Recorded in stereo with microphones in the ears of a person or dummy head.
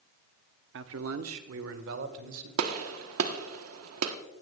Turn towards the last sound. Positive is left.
turn(degrees=-85)